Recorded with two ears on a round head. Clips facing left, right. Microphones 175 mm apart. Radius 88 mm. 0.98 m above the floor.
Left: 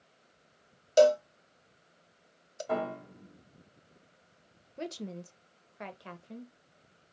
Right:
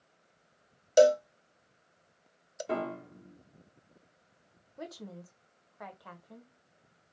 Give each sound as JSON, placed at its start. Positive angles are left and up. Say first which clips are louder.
{"t": 1.0, "sound": "a cowbell", "louder": "even", "side_deg": -15, "distance_m": 0.6}
{"t": 2.7, "sound": "a piano", "louder": "left 1 dB", "side_deg": -30, "distance_m": 2.5}
{"t": 4.8, "sound": "a woman speaking", "louder": "left 5 dB", "side_deg": 30, "distance_m": 0.7}